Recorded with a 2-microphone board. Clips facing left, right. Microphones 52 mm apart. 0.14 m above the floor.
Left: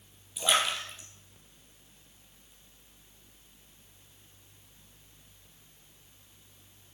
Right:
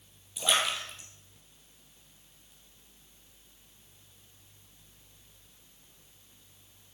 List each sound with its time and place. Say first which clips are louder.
0.4 s a splash: left 1 dB; centre (ahead or behind), 2.5 m